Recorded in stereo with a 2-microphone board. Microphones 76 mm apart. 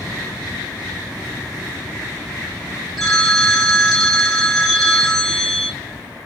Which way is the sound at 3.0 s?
5° left (ahead or behind).